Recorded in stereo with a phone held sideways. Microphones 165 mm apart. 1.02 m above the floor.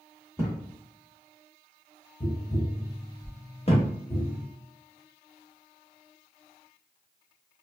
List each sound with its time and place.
0.4 s a thud: 15° right (ahead or behind), 1.3 m
2.2 s tapping: 35° left (ahead or behind), 0.9 m
3.7 s a thud: 40° left (ahead or behind), 0.9 m